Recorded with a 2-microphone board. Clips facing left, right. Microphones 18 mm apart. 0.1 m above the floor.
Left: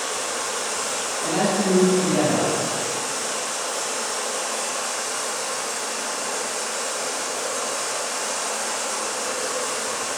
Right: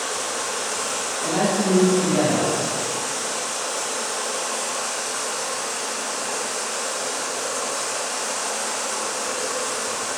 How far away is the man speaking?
About 1.8 m.